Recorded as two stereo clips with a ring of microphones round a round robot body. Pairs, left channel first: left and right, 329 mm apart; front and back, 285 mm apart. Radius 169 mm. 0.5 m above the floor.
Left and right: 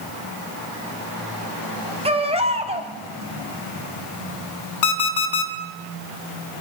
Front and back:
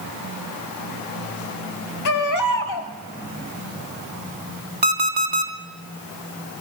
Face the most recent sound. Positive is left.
turn(degrees=125)